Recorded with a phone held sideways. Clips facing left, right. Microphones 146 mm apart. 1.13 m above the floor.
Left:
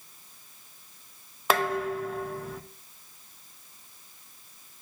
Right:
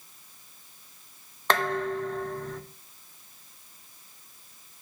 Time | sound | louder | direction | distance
1.5 | dishes clattering | even | 10° left (ahead or behind) | 0.6 m